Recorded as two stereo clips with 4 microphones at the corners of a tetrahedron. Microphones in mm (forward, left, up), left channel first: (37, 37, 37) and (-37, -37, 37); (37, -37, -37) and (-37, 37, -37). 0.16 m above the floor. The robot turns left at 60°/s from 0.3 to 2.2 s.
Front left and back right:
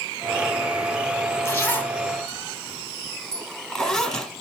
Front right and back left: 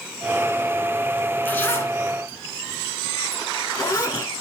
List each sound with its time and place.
1.4 s a zipper: 10° left, 1.7 m; by 4.3 s 35° right, 1.7 m